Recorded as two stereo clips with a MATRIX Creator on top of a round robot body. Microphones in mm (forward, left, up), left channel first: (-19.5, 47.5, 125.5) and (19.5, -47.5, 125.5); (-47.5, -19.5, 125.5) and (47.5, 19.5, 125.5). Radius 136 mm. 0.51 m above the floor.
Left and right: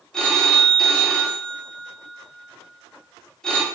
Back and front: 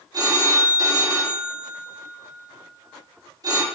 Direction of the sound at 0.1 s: 35° left.